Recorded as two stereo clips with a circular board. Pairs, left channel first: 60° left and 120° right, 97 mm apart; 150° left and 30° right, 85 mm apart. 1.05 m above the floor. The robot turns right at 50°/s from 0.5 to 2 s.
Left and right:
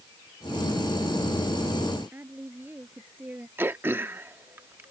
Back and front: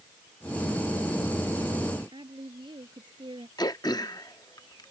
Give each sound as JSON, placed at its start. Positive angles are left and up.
{"t": 2.1, "sound": "a woman speaking", "azimuth_deg": -50}
{"t": 3.6, "sound": "throat clearing", "azimuth_deg": 175}